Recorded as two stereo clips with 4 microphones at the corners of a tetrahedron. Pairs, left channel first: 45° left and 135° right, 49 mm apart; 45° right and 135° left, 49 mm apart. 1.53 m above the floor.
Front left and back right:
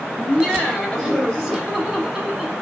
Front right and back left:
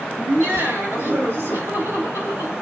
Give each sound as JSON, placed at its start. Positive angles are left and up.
{"t": 0.2, "sound": "laughter", "azimuth_deg": 130, "distance_m": 3.5}